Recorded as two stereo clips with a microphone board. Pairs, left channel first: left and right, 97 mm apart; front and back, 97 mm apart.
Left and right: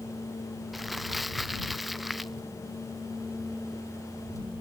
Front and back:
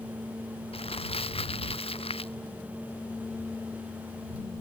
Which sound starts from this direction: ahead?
Crumpling, at 0.7 s.